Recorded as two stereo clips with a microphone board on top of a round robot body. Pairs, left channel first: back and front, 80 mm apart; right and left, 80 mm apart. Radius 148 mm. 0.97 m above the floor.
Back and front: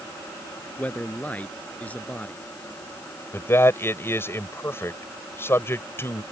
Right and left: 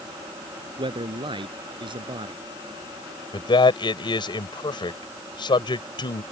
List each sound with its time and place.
0.8 s a man speaking: 110° left
3.3 s a man speaking: 115° right